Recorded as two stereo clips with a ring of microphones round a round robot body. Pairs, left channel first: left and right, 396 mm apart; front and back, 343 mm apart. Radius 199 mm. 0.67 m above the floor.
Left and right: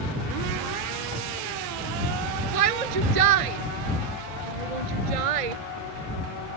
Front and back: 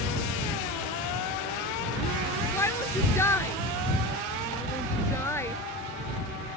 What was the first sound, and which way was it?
A shout, 85° right.